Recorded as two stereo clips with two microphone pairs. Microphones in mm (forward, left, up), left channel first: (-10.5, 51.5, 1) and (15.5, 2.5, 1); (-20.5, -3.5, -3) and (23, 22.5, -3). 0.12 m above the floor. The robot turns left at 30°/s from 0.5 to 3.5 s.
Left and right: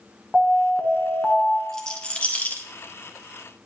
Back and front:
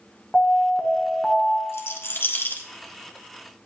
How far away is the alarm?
About 1.3 m.